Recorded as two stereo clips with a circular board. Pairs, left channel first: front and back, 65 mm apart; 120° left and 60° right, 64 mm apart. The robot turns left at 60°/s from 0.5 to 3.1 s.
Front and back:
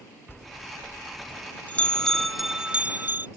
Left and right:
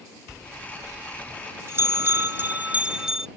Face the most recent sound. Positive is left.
turn(degrees=-135)